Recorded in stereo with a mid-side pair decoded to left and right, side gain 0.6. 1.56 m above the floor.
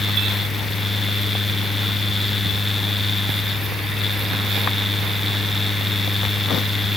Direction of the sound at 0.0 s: 10° left.